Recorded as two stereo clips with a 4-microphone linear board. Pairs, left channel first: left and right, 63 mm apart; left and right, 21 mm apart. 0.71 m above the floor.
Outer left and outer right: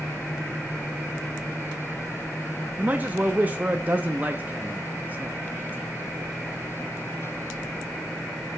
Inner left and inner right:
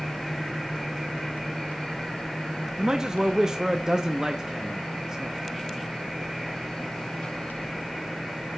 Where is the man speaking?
30° right (ahead or behind), 0.6 m.